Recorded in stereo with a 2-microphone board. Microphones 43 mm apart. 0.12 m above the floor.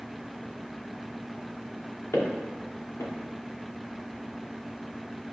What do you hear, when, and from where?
2.1 s footsteps: 90° left, 3 m